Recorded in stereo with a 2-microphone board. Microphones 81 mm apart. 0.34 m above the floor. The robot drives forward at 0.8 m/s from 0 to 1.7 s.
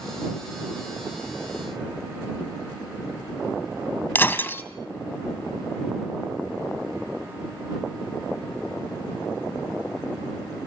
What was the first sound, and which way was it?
Breaking glass, 25° left (ahead or behind).